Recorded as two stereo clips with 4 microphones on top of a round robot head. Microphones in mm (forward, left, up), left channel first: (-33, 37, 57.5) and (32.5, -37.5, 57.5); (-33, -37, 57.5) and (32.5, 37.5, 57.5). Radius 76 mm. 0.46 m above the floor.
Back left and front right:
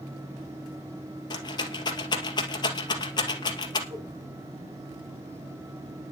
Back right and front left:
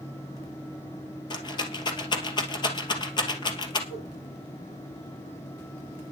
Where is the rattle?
Straight behind, 2.5 m.